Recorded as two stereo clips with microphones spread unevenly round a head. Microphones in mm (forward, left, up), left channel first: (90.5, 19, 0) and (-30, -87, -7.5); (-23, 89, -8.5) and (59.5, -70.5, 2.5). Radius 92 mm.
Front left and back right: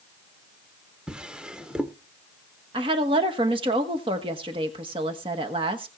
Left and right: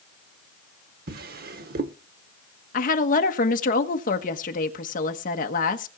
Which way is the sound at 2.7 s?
160° left.